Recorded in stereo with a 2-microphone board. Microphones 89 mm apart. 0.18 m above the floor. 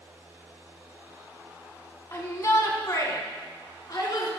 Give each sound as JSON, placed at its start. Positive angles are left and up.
{"t": 2.1, "sound": "a shout", "side_deg": 30, "distance_m": 1.2}